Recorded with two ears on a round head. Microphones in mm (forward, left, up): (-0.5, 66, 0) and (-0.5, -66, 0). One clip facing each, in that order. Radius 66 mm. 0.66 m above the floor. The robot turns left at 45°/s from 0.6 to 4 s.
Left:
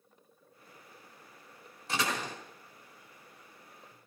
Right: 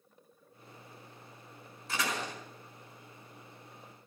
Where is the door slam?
60° left (ahead or behind), 4.5 m; by 2.4 s 80° left, 4.5 m.